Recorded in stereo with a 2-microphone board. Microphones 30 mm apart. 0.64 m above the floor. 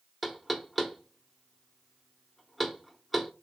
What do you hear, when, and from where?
0.2 s knocking: 5° left (ahead or behind), 0.7 m